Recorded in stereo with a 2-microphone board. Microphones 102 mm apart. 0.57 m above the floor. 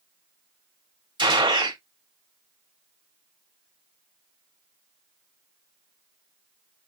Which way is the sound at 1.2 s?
45° right (ahead or behind).